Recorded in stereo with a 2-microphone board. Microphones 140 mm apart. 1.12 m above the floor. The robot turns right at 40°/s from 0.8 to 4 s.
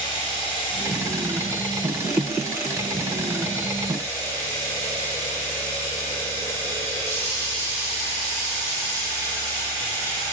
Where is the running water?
35° left, 3.5 m; by 10.3 s 165° left, 3.5 m.